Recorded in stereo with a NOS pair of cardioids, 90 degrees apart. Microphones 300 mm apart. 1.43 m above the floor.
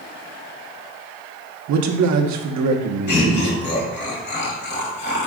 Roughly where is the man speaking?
Ahead right.